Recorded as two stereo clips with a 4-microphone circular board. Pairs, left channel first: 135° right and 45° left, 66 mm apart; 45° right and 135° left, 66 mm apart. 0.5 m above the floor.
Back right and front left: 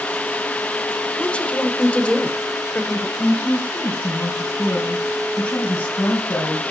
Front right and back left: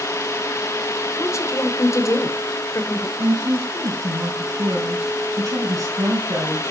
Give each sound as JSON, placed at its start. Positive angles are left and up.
{"t": 1.2, "sound": "a woman speaking", "azimuth_deg": -65, "distance_m": 2.0}
{"t": 3.2, "sound": "a woman speaking", "azimuth_deg": 170, "distance_m": 3.5}